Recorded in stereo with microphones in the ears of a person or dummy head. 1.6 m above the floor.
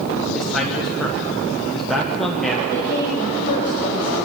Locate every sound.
0.3 s a man speaking: centre (ahead or behind), 1.4 m
2.7 s a woman speaking: 15° left (ahead or behind), 5.5 m